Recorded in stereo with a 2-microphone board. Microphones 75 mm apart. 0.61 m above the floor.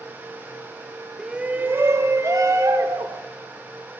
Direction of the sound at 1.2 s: 5° right (ahead or behind).